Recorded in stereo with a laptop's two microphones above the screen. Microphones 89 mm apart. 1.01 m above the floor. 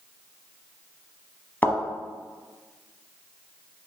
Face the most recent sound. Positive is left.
turn(degrees=20)  # may be behind; listen again after turning